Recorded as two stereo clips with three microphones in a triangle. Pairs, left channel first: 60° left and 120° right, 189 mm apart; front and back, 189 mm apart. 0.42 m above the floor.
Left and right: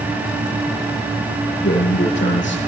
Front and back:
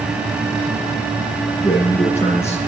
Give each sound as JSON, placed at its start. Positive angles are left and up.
{"t": 1.6, "sound": "a man speaking", "azimuth_deg": 60, "distance_m": 10.0}